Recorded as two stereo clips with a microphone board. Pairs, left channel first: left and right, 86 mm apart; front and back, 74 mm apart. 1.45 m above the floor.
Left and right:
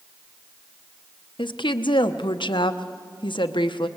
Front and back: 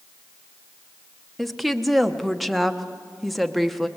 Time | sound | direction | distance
1.4 | a woman speaking | 90° left | 1.0 m